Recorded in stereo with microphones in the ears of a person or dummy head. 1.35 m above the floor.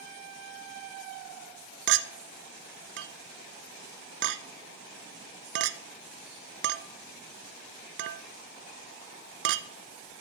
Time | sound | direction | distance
1.9 | a clink | 70° right (ahead or behind) | 0.5 m